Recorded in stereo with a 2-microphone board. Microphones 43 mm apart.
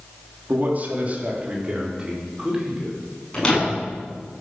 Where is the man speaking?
40° right (ahead or behind), 4 m; by 3.0 s 10° right (ahead or behind), 6 m.